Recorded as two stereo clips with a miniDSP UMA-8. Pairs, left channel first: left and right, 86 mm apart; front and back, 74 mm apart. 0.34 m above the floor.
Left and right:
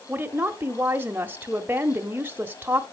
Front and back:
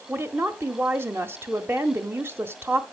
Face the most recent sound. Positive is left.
turn(degrees=-145)